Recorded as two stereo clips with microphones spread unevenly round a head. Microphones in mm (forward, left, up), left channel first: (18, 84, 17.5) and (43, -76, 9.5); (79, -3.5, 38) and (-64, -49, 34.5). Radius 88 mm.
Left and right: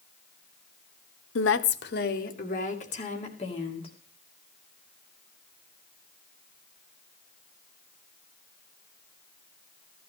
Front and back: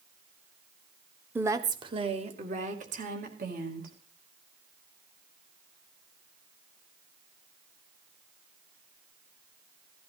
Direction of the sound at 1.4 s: 120° left.